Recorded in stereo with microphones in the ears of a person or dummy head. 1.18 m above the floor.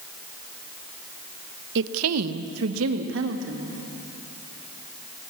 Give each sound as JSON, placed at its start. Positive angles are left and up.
{"t": 1.8, "sound": "a woman speaking", "side_deg": -65, "distance_m": 0.7}